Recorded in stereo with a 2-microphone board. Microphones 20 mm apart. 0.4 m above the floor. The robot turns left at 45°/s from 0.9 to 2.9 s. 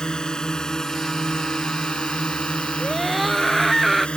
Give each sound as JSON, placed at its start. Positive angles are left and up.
{"t": 0.0, "sound": "a drone", "side_deg": 50}
{"t": 2.8, "sound": "a scream", "side_deg": 0}